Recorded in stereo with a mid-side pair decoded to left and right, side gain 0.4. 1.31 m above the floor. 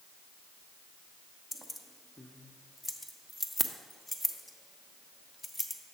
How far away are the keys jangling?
About 0.9 m.